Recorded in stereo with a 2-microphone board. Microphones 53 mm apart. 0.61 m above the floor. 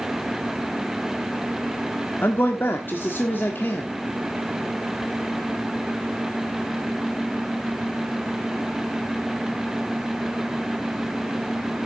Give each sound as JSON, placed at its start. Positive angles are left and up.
{"t": 2.2, "sound": "a man speaking", "side_deg": 45, "distance_m": 1.4}